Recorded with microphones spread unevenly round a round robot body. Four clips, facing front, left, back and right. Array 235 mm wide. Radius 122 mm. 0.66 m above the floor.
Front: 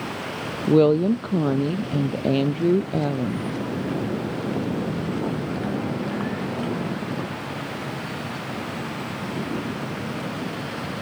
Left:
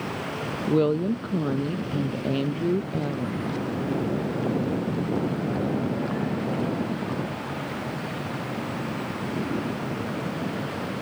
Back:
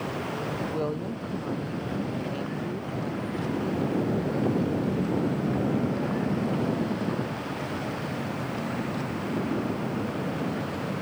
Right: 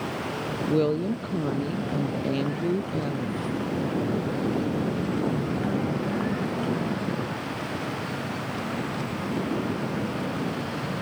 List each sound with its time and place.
0.7 s a woman speaking: 5° left